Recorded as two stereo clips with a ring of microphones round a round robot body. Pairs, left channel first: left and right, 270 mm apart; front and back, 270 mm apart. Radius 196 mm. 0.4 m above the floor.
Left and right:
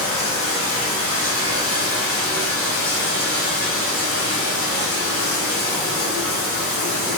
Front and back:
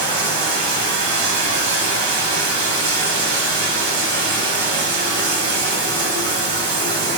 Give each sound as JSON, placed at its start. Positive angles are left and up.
{"t": 0.0, "sound": "running water", "azimuth_deg": 145, "distance_m": 1.7}